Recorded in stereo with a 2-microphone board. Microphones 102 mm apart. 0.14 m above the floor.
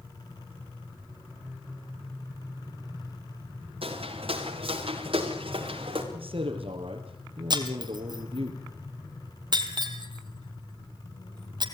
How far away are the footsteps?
About 7 m.